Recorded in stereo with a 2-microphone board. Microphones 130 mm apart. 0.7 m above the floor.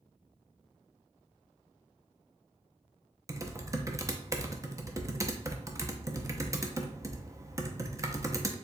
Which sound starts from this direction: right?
Typing on a keyboard, at 3.3 s.